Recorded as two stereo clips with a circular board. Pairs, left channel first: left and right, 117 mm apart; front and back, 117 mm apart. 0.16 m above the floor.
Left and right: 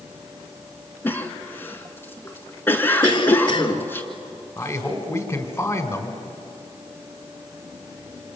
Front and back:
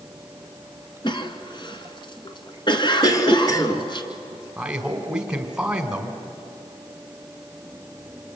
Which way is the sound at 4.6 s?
110° left.